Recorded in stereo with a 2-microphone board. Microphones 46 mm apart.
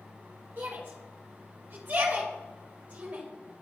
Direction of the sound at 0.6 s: 40° right (ahead or behind).